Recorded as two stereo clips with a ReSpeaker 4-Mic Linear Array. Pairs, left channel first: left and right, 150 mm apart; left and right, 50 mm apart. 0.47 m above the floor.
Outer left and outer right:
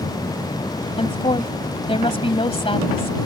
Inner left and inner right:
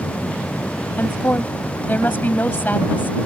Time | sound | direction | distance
1.0 | a woman speaking | 40° left (ahead or behind) | ?